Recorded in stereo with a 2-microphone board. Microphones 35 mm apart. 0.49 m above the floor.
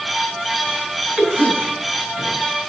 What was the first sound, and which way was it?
A cough, 25° right (ahead or behind).